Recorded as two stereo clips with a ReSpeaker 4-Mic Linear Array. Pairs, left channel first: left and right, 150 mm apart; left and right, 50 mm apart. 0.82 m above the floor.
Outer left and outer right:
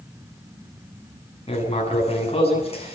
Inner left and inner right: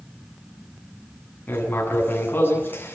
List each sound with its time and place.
1.5 s writing: 40° left (ahead or behind), 9 m